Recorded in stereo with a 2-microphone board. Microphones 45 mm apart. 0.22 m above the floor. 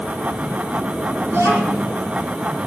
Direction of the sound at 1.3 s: 80° right.